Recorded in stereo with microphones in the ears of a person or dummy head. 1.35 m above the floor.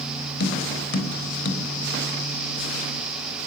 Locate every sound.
0.4 s tapping: 55° left (ahead or behind), 4.5 m